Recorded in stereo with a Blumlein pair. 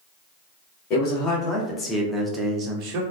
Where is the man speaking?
35° left, 1.1 m; by 3.0 s 45° right, 0.7 m.